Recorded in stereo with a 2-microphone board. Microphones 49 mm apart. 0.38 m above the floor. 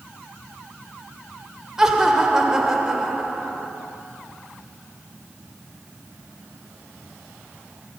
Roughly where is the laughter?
Centre.